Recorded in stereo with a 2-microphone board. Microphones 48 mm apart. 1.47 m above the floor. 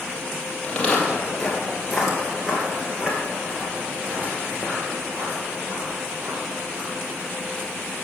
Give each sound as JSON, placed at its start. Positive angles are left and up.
{"t": 0.6, "sound": "footsteps", "side_deg": 20, "distance_m": 2.0}